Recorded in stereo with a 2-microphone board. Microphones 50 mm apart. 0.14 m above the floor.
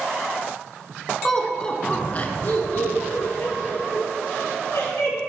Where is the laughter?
5° left (ahead or behind), 1.3 m; by 5.2 s 70° left (ahead or behind), 3.5 m.